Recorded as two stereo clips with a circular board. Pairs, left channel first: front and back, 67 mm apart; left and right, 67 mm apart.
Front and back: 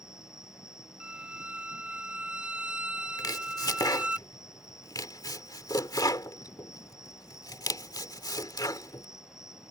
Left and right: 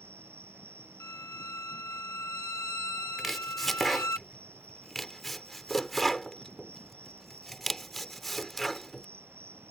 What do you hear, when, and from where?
0.0 s an insect: 40° right
1.0 s a violin: 110° left
3.2 s chopping: straight ahead